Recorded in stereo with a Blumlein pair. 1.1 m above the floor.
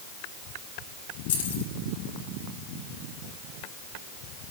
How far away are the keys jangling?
About 7 m.